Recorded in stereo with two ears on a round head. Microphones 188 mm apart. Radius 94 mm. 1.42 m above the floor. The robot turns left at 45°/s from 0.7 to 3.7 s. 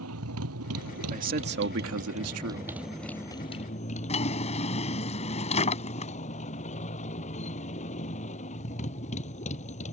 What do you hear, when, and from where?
0.0 s a motorcycle: 80° right; by 9.9 s 145° left
1.1 s a man speaking: 35° right; by 2.7 s 110° right
4.1 s a drawer: 30° left (ahead or behind)